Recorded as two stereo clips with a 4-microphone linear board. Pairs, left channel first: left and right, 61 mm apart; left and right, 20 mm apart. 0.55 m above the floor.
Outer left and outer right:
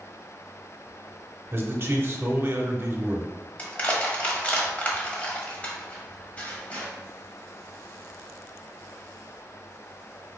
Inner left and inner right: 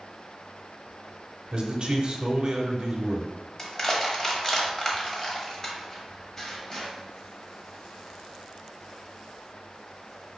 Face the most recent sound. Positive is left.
turn(degrees=25)  # may be behind; listen again after turning